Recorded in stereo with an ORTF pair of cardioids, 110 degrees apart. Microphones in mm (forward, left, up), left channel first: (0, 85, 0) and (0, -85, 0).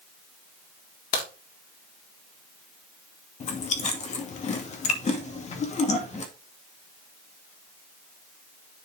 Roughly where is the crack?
Left.